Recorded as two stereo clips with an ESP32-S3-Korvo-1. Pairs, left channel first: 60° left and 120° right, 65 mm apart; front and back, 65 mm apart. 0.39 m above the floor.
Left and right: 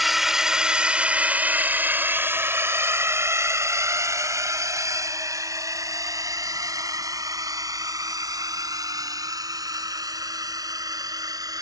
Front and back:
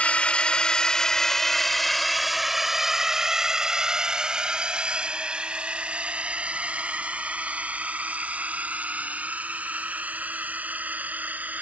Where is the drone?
35° right; by 11.6 s 115° right.